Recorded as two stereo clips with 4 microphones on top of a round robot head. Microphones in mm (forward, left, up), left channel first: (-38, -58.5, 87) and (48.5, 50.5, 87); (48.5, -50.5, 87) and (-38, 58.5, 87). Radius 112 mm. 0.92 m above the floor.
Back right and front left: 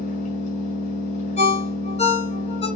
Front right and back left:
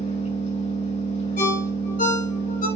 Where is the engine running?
95° right, 5.5 m.